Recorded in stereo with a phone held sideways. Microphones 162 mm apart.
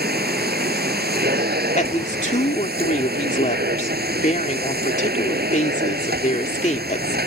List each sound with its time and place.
0.0 s a machine running: 80° right
1.8 s a woman speaking: 50° left (ahead or behind)